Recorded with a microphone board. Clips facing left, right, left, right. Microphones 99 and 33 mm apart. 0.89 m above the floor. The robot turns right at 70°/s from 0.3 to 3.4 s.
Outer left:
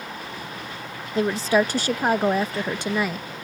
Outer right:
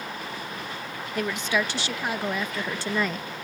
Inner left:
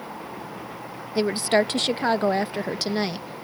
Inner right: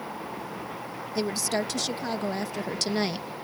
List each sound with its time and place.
1.1 s a woman speaking: 35° left; by 3.3 s 175° right